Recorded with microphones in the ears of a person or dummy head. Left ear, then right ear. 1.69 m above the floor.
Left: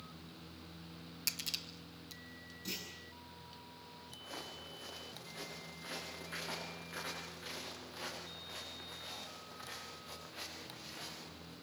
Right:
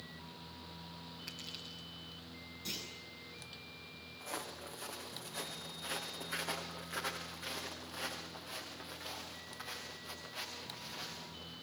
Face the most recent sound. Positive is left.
turn(degrees=-10)  # may be behind; listen again after turning